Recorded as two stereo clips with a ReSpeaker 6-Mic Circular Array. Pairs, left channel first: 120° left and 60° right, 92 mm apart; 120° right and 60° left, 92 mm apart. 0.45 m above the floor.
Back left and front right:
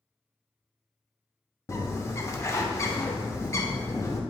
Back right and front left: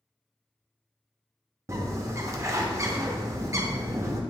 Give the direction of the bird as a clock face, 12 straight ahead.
9 o'clock.